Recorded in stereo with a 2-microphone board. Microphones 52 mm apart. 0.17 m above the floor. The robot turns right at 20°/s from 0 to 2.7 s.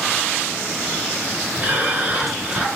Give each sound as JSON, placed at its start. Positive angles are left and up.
{"t": 1.6, "sound": "breathing", "side_deg": -25, "distance_m": 1.6}